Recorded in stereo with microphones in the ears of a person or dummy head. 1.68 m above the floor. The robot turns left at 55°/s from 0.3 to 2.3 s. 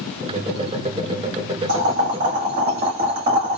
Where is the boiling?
105° right, 2 m; by 3.6 s 135° right, 2 m.